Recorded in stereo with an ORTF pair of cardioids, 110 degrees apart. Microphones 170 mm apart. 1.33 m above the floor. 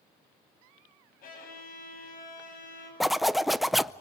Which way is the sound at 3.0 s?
Straight ahead.